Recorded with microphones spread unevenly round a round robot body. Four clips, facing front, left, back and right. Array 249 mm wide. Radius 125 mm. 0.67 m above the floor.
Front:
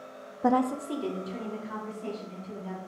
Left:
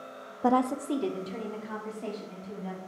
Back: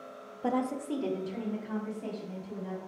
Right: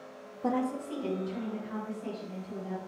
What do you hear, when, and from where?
0.4 s a woman speaking: 30° left, 0.5 m; by 2.8 s 105° left, 4 m